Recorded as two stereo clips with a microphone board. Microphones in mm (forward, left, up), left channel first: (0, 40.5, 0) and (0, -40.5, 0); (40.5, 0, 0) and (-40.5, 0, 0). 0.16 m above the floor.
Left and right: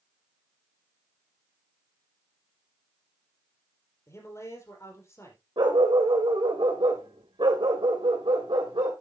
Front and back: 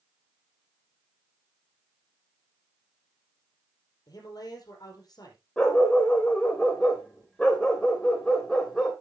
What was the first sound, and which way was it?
A man speaking, 35° left.